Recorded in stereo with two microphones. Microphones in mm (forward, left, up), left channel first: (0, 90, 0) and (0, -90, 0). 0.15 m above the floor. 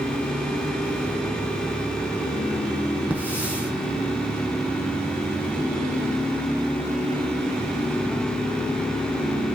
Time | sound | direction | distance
3.1 | a hiss | 10° right (ahead or behind) | 4.5 m